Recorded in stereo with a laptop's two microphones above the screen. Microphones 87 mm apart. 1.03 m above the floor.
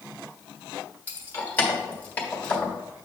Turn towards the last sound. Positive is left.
turn(degrees=15)  # may be behind; listen again after turning